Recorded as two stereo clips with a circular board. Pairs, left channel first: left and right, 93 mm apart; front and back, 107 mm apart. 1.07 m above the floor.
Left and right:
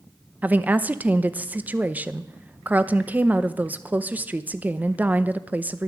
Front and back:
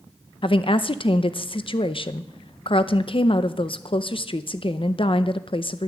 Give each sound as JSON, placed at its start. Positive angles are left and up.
{"t": 0.4, "sound": "a woman speaking", "azimuth_deg": -20, "distance_m": 0.6}